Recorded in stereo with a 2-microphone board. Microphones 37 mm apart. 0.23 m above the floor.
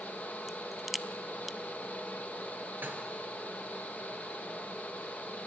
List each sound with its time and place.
0.5 s a crack: 5° right (ahead or behind), 0.6 m
2.8 s dishes clattering: 65° right (ahead or behind), 3 m